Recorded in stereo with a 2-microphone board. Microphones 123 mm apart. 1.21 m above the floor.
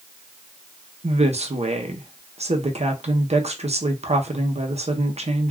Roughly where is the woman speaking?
Right.